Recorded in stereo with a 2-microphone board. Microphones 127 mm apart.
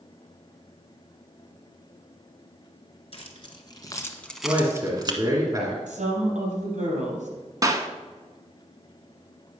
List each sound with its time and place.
3.1 s keys jangling: 50° left (ahead or behind), 1.9 m; by 5.2 s 40° right (ahead or behind), 1.3 m
4.4 s a man speaking: 30° right (ahead or behind), 1.8 m
5.9 s a woman speaking: 70° right (ahead or behind), 5 m
7.6 s a clap: 30° right (ahead or behind), 1.0 m